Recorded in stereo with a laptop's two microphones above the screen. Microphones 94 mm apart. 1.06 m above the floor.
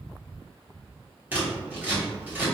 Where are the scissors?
15° right (ahead or behind), 1.1 m.